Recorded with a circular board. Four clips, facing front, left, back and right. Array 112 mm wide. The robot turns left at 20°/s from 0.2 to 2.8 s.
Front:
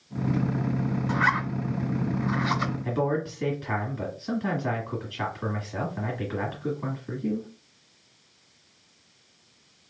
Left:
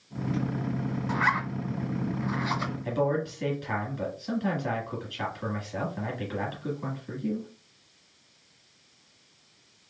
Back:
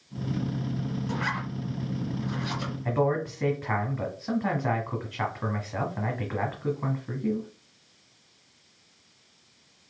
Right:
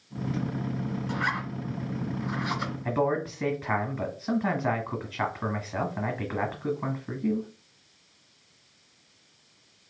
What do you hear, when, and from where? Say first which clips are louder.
1.1 s a zipper: left 6 dB, front 9 dB; 45° left, 1.0 m; by 2.7 s 10° left, 1.0 m
2.9 s a man speaking: right 1 dB, back 3 dB; 125° right, 1.3 m